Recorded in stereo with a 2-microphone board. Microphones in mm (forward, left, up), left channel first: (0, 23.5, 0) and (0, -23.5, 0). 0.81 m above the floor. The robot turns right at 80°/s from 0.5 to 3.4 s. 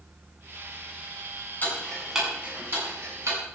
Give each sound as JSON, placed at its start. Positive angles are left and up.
{"t": 1.6, "sound": "ticking", "side_deg": 40, "distance_m": 8.5}